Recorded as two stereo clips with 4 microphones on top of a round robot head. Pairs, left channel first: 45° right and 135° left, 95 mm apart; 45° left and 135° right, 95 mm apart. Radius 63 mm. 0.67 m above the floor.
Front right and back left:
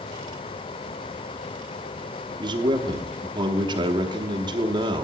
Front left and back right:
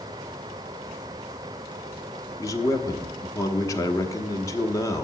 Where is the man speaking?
100° left, 1.2 m.